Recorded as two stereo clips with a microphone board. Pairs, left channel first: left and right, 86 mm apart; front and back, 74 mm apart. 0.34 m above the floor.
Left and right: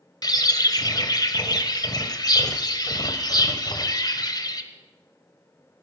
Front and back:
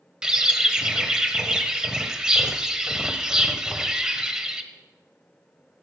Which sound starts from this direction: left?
A bird, at 0.2 s.